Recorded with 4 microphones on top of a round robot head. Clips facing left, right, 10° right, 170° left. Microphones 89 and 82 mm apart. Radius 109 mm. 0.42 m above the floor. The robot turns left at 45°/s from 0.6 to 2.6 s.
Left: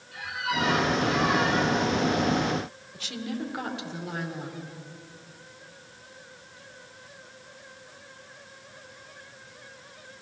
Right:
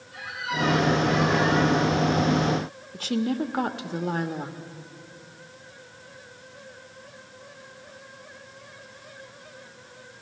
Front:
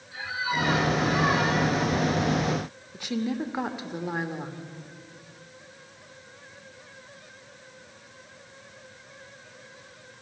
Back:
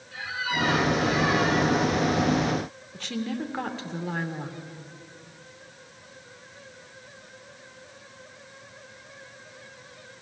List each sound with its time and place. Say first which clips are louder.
0.1 s a squeak: left 1 dB, front 1 dB; 65° left, 6 m; by 1.8 s 10° left, 6 m
2.9 s a woman speaking: right 8 dB, front 2 dB; 80° right, 1.4 m